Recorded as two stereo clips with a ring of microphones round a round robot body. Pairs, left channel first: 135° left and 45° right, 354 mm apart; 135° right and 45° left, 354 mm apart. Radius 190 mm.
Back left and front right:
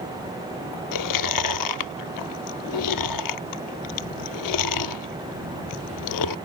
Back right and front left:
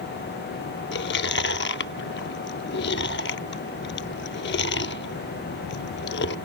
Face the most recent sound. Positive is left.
turn(degrees=165)